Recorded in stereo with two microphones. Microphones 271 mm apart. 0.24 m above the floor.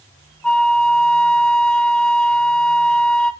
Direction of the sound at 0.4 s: 5° left (ahead or behind).